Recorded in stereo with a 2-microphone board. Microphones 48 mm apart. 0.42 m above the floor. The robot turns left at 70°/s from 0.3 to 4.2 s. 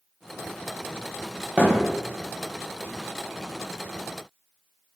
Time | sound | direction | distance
1.6 | a thud | 35° right (ahead or behind) | 1.0 m